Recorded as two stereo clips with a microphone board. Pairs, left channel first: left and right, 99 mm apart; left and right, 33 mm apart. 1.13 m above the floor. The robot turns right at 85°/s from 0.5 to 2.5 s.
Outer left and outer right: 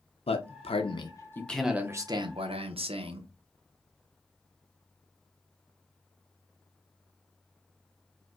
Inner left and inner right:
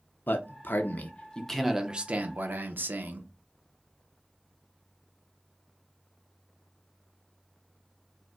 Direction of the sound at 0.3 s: 85° left.